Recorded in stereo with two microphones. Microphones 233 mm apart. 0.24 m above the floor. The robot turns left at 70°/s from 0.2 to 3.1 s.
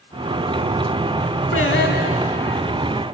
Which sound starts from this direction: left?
Singing, at 1.5 s.